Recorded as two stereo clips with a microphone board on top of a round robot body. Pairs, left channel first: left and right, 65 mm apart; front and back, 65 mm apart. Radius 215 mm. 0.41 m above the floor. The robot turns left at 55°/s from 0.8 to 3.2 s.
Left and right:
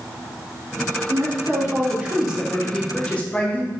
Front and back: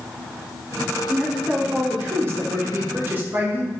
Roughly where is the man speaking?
Right.